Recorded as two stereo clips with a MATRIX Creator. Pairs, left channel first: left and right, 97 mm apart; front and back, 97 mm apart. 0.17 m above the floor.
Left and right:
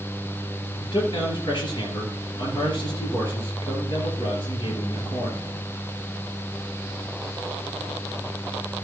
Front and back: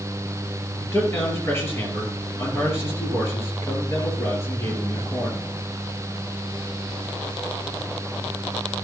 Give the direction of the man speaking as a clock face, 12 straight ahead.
10 o'clock.